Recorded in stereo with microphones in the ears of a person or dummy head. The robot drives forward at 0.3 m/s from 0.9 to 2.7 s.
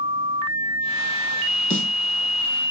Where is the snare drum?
65° left (ahead or behind), 1.9 m.